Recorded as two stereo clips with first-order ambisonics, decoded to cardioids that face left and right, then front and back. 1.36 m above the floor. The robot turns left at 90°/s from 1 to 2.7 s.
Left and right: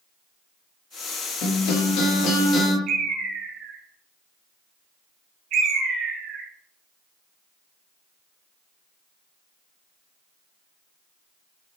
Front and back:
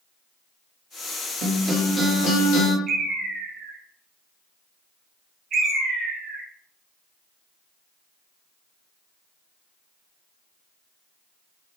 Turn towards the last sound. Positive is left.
turn(degrees=-125)